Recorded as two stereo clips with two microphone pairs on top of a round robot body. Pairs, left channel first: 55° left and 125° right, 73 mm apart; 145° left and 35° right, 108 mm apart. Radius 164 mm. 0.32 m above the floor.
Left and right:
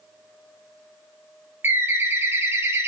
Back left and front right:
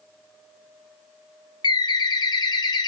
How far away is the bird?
About 0.6 m.